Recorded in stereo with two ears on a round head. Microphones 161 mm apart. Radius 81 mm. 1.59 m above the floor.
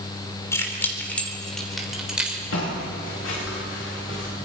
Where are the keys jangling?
15° left (ahead or behind), 3 m; by 2.4 s 5° right (ahead or behind), 3.5 m.